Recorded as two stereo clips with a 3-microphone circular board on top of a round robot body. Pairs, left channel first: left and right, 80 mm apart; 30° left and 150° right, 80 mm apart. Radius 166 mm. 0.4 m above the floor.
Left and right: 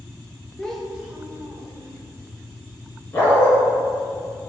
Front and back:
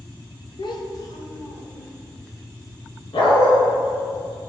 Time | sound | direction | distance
0.6 | a child speaking | 10° left | 1.1 m
3.1 | a dog barking | 25° left | 1.7 m